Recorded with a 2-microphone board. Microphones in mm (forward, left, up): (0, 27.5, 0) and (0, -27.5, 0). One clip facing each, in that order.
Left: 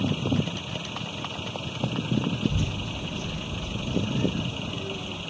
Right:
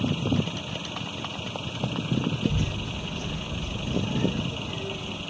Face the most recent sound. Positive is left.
turn(degrees=-50)  # may be behind; listen again after turning